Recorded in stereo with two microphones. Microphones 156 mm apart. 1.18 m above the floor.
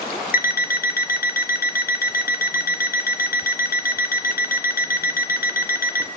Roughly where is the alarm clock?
Left.